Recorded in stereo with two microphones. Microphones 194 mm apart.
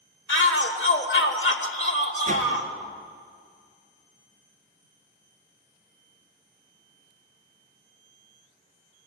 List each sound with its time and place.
0.3 s a shout: 70° left (ahead or behind), 2.5 m
2.3 s a whoosh: 40° right (ahead or behind), 3 m